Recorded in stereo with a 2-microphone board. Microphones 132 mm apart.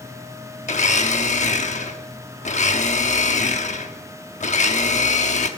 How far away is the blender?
About 1.0 m.